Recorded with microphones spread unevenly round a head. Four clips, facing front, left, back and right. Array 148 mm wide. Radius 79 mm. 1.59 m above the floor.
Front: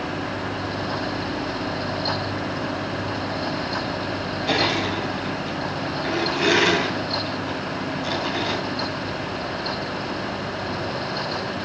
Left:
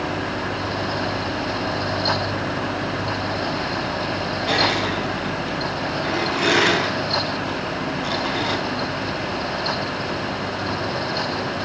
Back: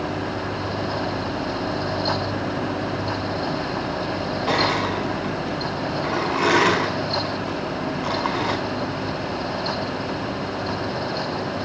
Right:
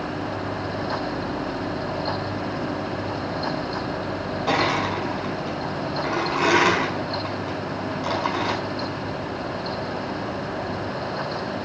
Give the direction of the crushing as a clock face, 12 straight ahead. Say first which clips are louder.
Even, back 1 dB; 5 o'clock.